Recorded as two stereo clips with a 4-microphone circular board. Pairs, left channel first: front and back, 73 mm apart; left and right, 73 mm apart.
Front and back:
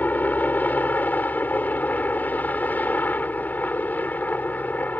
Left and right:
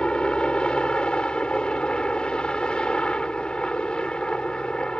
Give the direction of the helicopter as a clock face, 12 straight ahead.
11 o'clock.